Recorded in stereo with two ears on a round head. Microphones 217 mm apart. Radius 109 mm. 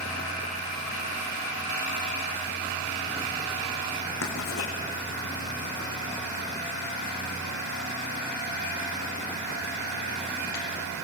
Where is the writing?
60° left (ahead or behind), 6 m.